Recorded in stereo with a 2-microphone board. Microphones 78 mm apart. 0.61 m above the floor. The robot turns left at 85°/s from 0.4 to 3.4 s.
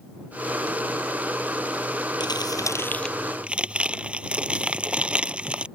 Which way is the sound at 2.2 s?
85° left.